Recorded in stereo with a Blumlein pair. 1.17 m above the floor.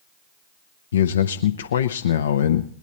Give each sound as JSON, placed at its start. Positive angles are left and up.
{"t": 0.9, "sound": "a man speaking", "azimuth_deg": 65, "distance_m": 0.7}